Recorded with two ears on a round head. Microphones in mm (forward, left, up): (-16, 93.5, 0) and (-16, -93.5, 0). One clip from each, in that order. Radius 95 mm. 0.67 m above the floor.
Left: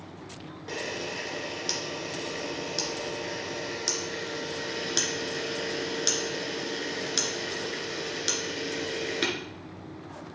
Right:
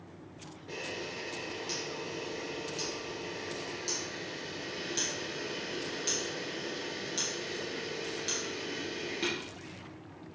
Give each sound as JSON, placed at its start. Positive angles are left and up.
{"t": 0.7, "sound": "a camera shutter", "side_deg": 55, "distance_m": 2.0}